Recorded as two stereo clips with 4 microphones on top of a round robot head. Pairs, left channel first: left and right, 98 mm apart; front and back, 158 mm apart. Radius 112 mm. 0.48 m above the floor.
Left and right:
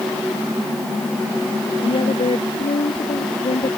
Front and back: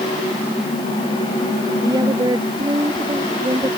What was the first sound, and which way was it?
A woman speaking, 115° left.